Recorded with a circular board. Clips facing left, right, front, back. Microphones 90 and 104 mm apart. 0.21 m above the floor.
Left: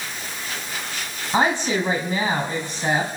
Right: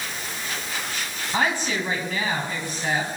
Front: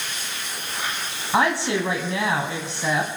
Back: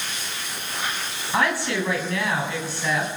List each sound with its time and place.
1.3 s a woman speaking: 50° left, 1.5 m